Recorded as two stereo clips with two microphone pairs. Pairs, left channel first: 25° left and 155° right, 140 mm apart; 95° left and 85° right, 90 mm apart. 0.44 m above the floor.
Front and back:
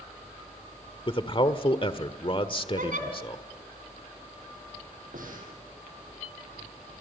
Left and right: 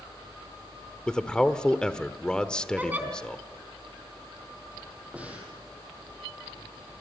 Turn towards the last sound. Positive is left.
turn(degrees=-160)